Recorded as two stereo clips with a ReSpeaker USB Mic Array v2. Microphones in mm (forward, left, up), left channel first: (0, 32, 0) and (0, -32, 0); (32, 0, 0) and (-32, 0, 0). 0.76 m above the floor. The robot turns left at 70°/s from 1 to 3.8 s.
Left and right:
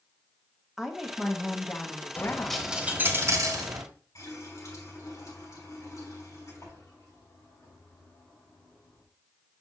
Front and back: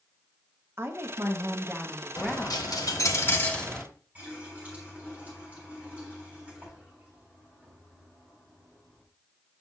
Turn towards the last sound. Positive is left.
turn(degrees=115)